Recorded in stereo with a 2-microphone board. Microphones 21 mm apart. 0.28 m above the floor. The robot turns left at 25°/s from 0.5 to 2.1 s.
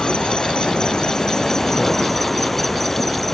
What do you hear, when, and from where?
0.0 s an insect: 50° left; by 3.3 s 10° left